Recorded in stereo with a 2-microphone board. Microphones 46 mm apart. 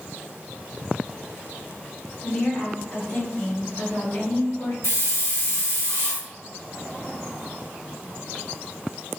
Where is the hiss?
65° left (ahead or behind), 1.0 m.